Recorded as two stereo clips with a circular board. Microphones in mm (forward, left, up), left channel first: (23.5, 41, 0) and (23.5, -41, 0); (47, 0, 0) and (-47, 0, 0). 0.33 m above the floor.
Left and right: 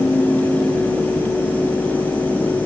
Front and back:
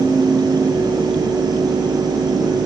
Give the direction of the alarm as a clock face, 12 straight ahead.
I don't hear an alarm.